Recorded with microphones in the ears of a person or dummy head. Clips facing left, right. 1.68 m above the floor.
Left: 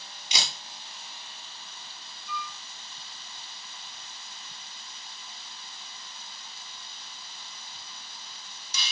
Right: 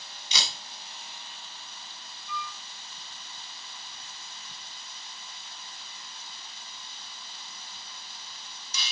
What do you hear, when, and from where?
0.3 s a camera shutter: 15° left (ahead or behind), 8.5 m
2.3 s a flute: 25° right (ahead or behind), 6.5 m